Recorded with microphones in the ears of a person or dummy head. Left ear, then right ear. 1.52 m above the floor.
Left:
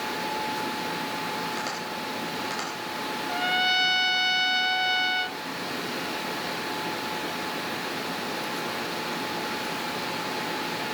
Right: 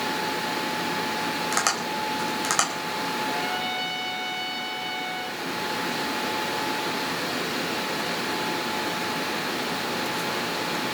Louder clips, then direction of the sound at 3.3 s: Left 3 dB; 45° left (ahead or behind).